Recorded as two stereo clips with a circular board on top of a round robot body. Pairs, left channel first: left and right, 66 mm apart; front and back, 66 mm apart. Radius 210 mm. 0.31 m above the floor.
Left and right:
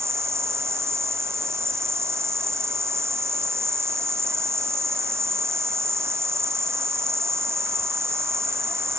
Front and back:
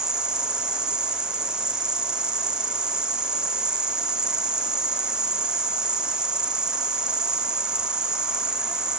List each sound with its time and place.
0.0 s an insect: 105° right, 1.0 m